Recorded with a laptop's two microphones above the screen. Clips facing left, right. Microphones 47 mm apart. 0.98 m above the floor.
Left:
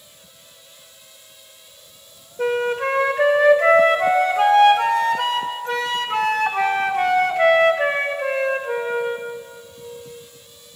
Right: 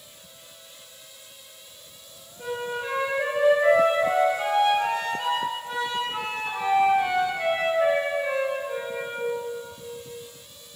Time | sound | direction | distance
2.4 | a flute | 70° left (ahead or behind) | 0.7 m